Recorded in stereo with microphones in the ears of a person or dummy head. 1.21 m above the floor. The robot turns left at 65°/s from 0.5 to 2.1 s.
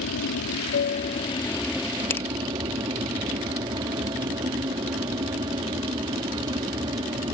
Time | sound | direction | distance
0.0 | an aircraft | 80° left | ?
2.1 | a finger snap | 10° left (ahead or behind) | ?